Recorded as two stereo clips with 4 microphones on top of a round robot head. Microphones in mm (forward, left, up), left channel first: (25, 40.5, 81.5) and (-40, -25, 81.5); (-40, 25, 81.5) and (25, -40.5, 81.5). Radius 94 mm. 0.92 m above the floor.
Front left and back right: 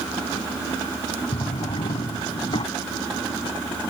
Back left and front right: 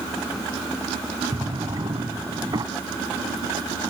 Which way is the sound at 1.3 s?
5° left.